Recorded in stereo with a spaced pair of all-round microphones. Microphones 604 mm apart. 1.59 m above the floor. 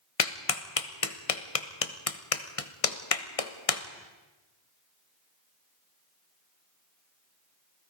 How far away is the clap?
About 1.2 m.